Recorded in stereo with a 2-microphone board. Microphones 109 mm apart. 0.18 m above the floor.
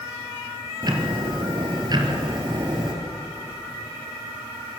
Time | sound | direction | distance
0.8 | ticking | 40° right (ahead or behind) | 3.5 m